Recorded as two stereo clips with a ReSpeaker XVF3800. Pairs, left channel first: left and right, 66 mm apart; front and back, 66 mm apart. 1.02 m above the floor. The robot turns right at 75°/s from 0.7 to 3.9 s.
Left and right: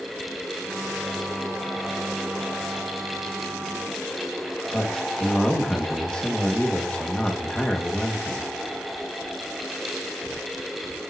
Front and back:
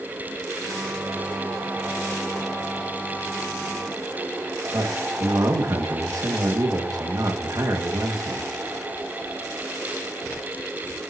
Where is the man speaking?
165° left, 1.8 m.